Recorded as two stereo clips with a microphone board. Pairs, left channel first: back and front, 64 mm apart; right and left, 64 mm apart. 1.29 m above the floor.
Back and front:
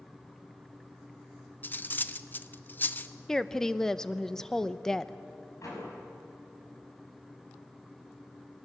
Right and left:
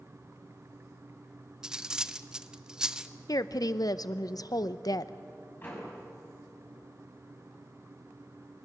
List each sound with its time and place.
1.6 s cutlery clinking: 160° left, 0.6 m
3.3 s a woman speaking: 100° right, 0.7 m
5.6 s a door slam: 145° right, 6.5 m